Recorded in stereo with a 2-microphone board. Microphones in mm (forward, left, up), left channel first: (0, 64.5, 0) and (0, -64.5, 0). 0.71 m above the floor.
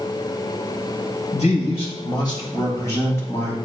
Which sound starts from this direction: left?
A man speaking, at 1.3 s.